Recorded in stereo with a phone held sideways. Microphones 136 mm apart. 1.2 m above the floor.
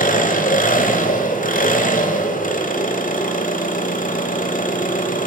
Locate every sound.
0.0 s an engine running: 80° left, 3 m